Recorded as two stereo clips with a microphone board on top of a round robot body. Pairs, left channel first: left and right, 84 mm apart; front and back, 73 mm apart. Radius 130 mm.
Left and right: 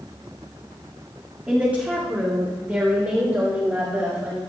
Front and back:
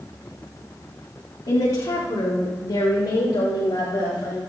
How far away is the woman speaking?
About 2 m.